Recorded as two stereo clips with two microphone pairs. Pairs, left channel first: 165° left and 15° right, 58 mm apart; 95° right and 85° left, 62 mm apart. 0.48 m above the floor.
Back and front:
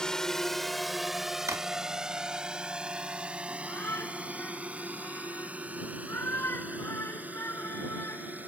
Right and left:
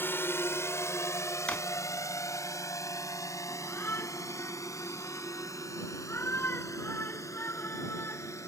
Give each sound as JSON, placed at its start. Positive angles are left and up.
{"t": 0.0, "sound": "a drone", "azimuth_deg": -120}
{"t": 1.5, "sound": "a drawer", "azimuth_deg": -25}
{"t": 3.5, "sound": "a shout", "azimuth_deg": -145}